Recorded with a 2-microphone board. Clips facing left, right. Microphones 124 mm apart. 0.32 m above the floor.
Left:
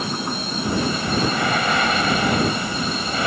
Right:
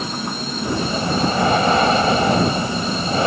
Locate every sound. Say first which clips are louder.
0.6 s breathing: right 1 dB; 30° right (ahead or behind)